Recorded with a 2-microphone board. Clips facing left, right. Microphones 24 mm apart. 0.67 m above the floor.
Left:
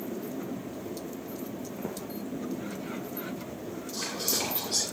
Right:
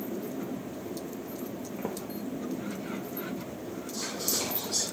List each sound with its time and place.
1.8 s footsteps: 15° right (ahead or behind), 2.0 m
3.9 s whispering: 60° left (ahead or behind), 2 m